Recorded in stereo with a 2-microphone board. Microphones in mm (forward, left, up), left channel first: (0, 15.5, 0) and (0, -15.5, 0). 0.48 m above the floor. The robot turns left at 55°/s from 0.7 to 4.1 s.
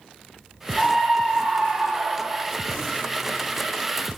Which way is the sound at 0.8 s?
20° left.